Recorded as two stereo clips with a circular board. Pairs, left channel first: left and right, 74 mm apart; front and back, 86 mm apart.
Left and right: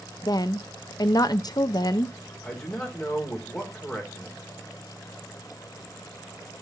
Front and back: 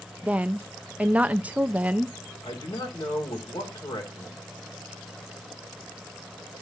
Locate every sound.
0.2 s a woman speaking: 105° left, 0.6 m
2.4 s a man speaking: 10° left, 3 m